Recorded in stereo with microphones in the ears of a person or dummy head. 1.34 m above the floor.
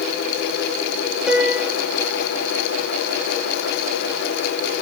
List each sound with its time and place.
1.3 s a piano: centre (ahead or behind), 2.5 m